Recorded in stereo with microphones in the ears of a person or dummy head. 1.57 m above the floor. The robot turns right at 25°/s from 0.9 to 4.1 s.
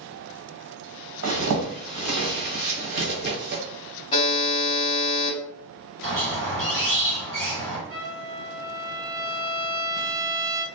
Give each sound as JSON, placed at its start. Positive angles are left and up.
{"t": 1.2, "sound": "a zipper", "side_deg": -65, "distance_m": 1.1}
{"t": 4.1, "sound": "a buzzer", "side_deg": 30, "distance_m": 0.7}
{"t": 6.0, "sound": "a squeak", "side_deg": -60, "distance_m": 1.3}
{"t": 7.9, "sound": "a trumpet", "side_deg": -30, "distance_m": 1.1}